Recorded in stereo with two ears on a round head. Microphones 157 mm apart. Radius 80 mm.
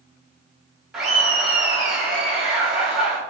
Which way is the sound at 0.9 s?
Centre (ahead or behind).